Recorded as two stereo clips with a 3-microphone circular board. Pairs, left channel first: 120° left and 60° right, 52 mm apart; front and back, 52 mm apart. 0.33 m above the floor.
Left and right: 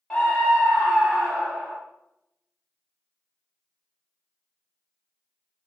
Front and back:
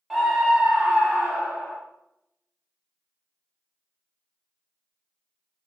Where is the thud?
No thud in this recording.